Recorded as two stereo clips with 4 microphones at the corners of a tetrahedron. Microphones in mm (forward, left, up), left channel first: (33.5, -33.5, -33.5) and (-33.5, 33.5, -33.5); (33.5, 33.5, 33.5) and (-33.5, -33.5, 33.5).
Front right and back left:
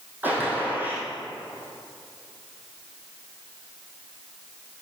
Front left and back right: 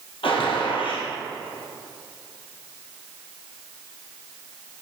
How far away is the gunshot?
About 2.5 m.